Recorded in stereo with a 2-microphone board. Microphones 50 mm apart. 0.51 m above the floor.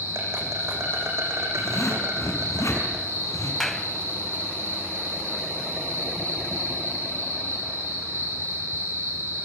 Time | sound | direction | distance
0.0 | an insect | 65° right (ahead or behind) | 8 m
1.6 | a zipper | 75° left (ahead or behind) | 7 m
3.6 | a clap | 5° left (ahead or behind) | 2.5 m